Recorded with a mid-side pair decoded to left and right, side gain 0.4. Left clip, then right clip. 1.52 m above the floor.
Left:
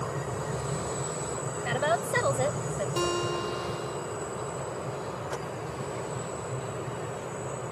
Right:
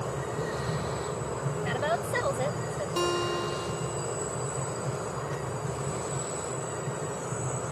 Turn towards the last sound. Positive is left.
turn(degrees=-10)